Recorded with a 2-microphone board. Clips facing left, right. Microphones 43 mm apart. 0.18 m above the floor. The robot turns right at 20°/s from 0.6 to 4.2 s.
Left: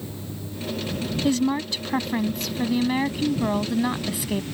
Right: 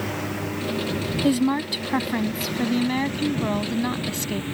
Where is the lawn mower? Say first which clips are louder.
Right 8 dB; 75° right (ahead or behind); by 4.5 s 30° right (ahead or behind).